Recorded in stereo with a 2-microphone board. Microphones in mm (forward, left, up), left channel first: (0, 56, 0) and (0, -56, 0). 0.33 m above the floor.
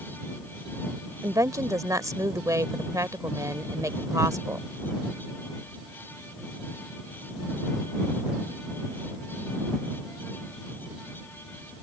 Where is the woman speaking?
30° right (ahead or behind).